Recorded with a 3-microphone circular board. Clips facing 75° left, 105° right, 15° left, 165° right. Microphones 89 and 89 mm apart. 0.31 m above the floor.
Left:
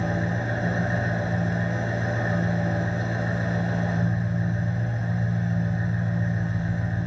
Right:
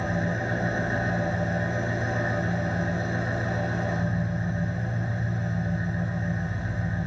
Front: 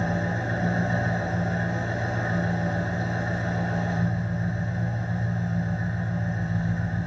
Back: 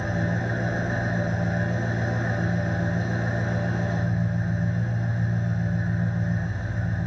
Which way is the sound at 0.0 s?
40° left.